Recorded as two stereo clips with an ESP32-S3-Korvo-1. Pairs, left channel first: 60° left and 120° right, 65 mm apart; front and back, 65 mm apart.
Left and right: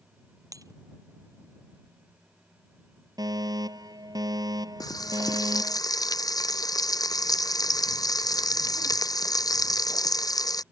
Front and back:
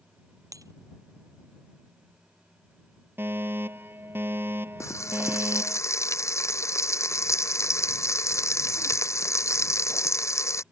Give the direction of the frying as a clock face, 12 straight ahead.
11 o'clock.